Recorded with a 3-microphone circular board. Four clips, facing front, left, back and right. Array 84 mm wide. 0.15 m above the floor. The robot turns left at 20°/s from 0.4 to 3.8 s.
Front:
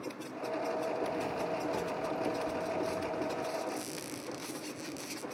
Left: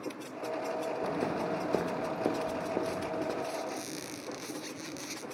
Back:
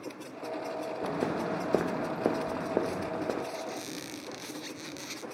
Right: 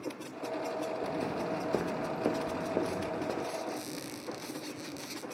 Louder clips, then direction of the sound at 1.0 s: Left 2 dB, back 3 dB; 155° left.